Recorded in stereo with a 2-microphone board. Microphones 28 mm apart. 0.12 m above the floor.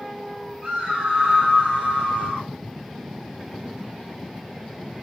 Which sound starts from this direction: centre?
A scream, at 0.6 s.